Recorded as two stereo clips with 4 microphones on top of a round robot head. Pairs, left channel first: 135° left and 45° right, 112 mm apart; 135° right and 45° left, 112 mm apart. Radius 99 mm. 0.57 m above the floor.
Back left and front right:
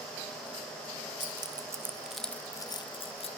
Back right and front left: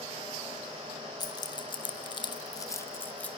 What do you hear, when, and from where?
1.2 s keys jangling: 85° right, 0.9 m; by 3.3 s 150° left, 0.9 m